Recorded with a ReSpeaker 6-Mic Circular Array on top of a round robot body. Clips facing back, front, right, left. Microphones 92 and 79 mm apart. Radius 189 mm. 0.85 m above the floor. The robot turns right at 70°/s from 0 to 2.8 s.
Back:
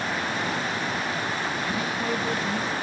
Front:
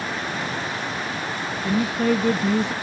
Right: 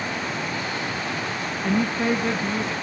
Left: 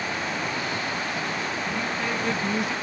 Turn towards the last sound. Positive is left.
turn(degrees=25)